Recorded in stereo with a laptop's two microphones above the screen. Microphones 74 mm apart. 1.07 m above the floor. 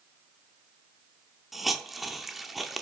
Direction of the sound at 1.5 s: Centre (ahead or behind).